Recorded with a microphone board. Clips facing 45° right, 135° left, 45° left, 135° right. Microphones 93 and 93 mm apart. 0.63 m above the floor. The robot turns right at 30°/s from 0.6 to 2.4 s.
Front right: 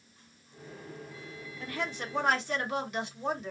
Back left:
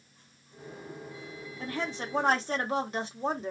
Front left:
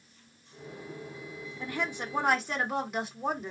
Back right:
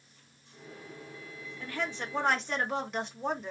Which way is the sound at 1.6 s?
105° left.